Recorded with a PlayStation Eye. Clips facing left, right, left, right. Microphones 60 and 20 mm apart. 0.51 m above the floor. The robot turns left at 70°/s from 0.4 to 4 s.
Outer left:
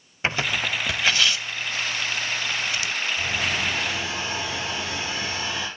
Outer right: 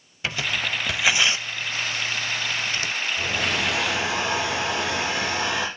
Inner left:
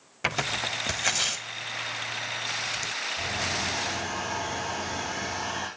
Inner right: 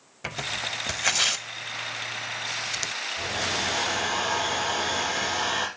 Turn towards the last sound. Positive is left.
turn(degrees=-110)